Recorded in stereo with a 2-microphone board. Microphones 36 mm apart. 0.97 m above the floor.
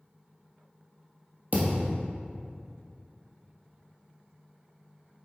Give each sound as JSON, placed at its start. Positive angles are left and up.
{"t": 1.5, "sound": "a thud", "side_deg": -45, "distance_m": 2.5}